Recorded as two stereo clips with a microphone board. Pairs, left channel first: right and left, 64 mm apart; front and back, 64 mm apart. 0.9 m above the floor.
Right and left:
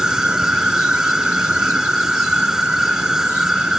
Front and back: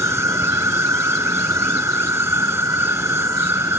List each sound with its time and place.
0.0 s an insect: 165° left